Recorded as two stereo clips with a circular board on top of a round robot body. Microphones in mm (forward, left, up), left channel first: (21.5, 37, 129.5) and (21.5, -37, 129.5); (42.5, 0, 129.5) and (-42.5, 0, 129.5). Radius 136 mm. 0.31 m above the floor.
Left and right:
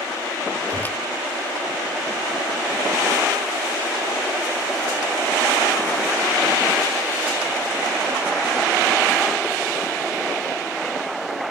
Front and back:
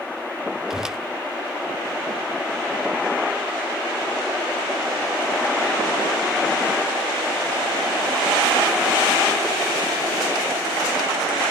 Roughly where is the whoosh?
Left.